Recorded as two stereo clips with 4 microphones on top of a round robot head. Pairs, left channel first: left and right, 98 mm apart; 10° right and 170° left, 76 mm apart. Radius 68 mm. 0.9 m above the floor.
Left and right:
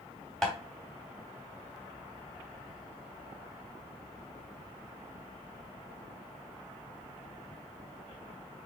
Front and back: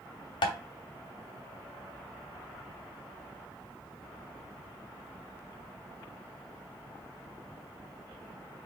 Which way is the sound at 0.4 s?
Straight ahead.